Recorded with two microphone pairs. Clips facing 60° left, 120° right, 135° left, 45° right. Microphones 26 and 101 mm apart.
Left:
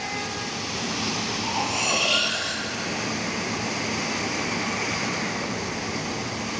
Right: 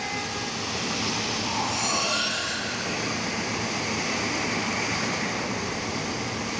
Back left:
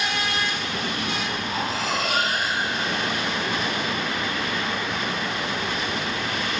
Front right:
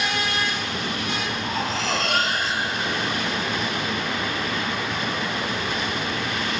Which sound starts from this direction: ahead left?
Cutlery clinking, at 1.4 s.